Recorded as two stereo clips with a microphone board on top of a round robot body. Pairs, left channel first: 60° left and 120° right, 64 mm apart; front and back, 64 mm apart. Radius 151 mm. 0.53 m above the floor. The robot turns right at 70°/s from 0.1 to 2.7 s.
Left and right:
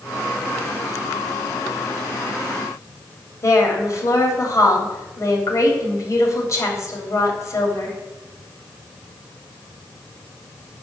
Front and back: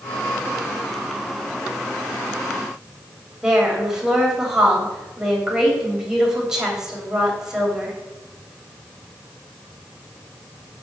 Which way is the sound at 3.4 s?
100° left.